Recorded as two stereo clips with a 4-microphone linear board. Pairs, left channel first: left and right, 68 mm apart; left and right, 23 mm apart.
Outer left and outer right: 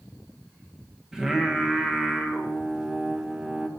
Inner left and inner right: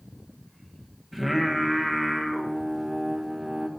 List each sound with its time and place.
1.1 s singing: 10° right (ahead or behind), 1.2 m